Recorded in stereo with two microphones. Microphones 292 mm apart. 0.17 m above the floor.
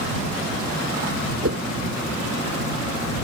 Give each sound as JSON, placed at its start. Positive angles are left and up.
{"t": 1.4, "sound": "a whoosh", "side_deg": -50}